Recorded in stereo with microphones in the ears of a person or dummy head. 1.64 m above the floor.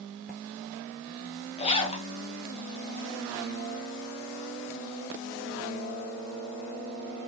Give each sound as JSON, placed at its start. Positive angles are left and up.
{"t": 1.6, "sound": "a zipper", "side_deg": 35, "distance_m": 0.5}